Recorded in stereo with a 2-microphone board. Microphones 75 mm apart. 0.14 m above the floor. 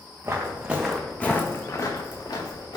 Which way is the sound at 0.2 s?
35° right (ahead or behind).